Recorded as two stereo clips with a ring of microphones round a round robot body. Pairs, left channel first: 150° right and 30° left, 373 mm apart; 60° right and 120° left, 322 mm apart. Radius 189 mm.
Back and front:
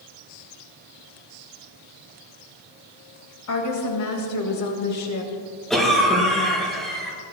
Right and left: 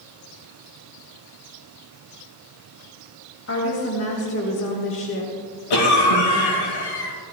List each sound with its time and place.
3.5 s a woman speaking: 110° right, 2.5 m
5.7 s a cough: 60° right, 6 m